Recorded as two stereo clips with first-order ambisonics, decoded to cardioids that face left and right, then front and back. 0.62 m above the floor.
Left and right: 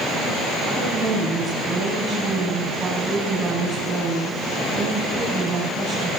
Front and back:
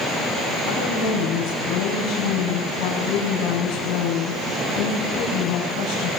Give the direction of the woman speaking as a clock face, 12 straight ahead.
1 o'clock.